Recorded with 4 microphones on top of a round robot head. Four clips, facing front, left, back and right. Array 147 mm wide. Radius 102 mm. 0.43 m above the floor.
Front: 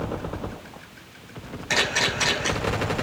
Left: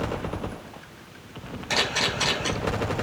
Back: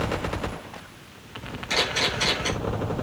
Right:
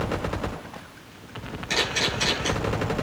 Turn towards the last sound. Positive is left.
turn(degrees=40)